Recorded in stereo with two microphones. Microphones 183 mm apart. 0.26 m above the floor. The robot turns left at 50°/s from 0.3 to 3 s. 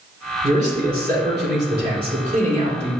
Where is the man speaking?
45° right, 3 m; by 2.9 s 170° right, 3 m.